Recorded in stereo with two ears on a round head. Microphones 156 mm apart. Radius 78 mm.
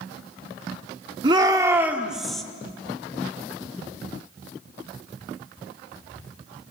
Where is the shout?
25° right (ahead or behind), 1.5 m; by 2.4 s 5° left (ahead or behind), 1.8 m.